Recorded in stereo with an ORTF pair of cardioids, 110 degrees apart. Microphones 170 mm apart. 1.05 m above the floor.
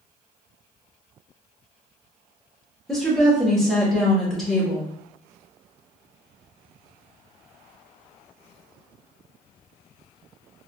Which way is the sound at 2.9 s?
5° left.